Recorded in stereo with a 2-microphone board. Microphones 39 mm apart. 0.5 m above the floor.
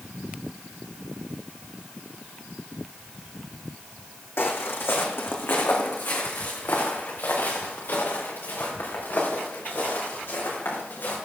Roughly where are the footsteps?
Left.